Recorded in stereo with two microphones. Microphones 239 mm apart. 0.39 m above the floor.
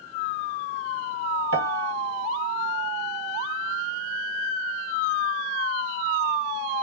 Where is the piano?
65° right (ahead or behind), 0.8 m.